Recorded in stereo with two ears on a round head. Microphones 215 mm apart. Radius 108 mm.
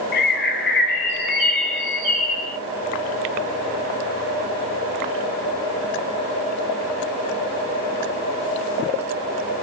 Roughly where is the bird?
Left.